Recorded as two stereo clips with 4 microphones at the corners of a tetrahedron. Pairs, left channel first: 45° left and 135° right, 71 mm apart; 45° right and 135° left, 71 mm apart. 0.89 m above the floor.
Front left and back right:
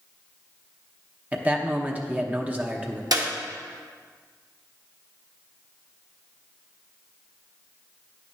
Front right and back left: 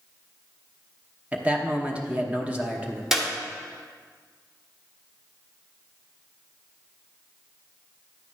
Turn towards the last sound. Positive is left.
turn(degrees=-140)